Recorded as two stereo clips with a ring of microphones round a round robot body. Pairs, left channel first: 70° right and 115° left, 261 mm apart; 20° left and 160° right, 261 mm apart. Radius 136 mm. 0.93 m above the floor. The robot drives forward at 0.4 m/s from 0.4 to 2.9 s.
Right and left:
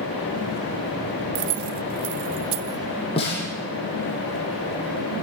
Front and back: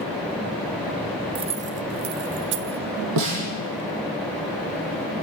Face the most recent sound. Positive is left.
turn(degrees=-135)